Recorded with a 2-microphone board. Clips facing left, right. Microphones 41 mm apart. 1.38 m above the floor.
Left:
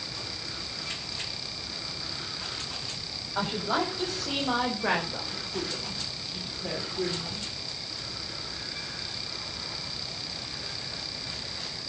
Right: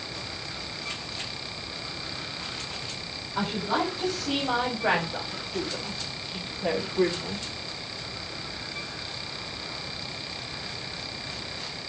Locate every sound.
3.4 s a woman speaking: 20° left (ahead or behind), 6 m; by 7.5 s 50° right (ahead or behind), 3.5 m